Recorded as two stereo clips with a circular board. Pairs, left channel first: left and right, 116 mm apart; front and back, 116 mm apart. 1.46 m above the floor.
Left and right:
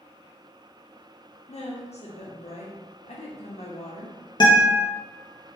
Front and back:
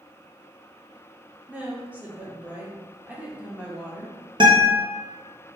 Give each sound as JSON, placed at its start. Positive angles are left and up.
{"t": 1.5, "sound": "a woman speaking", "azimuth_deg": 105, "distance_m": 0.7}
{"t": 4.4, "sound": "a guitar", "azimuth_deg": 140, "distance_m": 0.6}